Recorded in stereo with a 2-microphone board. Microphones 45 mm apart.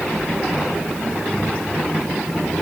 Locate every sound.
Only background noise.